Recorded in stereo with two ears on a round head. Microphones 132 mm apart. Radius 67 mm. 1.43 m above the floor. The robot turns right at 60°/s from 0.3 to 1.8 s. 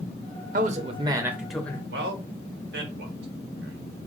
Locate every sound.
0.5 s a man speaking: 60° right, 0.7 m; by 1.8 s 15° left, 0.7 m
1.9 s a man speaking: 85° right, 1.5 m